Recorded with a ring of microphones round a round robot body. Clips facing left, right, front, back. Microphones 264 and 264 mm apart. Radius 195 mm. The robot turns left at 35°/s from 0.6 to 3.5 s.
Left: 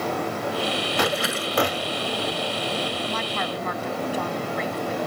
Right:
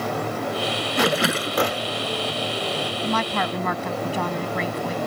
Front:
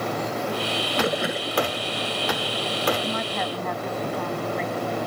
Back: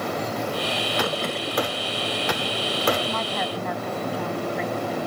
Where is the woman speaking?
75° right; by 5.0 s 95° right.